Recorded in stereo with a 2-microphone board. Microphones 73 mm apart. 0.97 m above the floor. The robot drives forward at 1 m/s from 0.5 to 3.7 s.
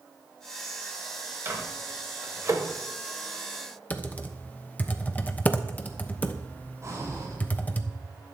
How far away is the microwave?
About 3.5 m.